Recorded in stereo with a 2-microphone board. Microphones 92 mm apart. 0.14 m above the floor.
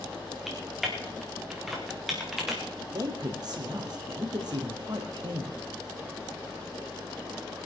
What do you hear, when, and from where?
0.5 s typing on a keyboard: centre (ahead or behind), 5 m
2.9 s a man speaking: 50° right (ahead or behind), 3 m